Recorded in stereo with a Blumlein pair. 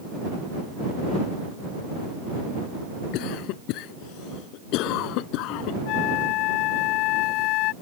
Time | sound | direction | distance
3.1 | a cough | 40° left | ?
5.9 | a flute | 40° left | ?